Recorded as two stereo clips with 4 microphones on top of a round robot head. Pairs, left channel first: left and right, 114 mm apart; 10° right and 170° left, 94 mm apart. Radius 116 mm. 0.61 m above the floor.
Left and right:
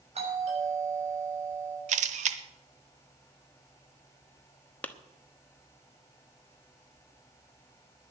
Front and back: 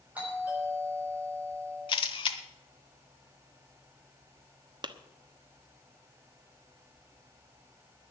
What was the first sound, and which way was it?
A doorbell, 115° right.